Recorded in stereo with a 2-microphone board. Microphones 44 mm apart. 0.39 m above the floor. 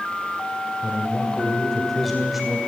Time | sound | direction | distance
0.8 | a man speaking | 25° left (ahead or behind) | 2 m